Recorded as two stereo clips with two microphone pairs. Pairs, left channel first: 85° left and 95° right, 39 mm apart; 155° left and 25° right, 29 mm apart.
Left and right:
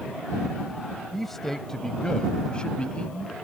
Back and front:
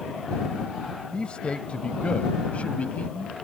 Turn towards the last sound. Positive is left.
turn(degrees=140)